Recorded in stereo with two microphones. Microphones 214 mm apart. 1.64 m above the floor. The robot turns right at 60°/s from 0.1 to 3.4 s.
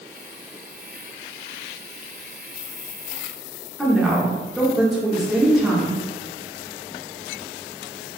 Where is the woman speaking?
Centre (ahead or behind), 0.8 m.